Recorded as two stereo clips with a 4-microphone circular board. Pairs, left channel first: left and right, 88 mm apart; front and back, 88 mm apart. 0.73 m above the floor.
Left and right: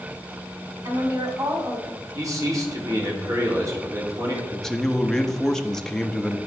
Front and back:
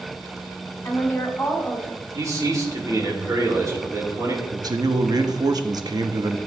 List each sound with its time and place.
0.8 s a woman speaking: 55° right, 1.8 m; by 2.0 s 80° right, 2 m
2.1 s a man speaking: 135° right, 1.7 m
4.5 s a man speaking: 175° left, 0.6 m